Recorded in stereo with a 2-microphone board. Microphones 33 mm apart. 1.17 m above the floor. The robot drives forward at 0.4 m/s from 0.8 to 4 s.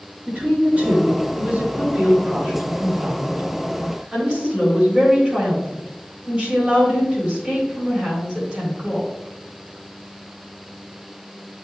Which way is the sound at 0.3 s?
50° right (ahead or behind).